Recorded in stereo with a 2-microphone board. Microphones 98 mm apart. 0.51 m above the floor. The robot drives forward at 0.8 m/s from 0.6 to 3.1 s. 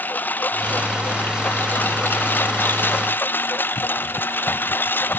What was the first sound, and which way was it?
A lawn mower, 20° left (ahead or behind).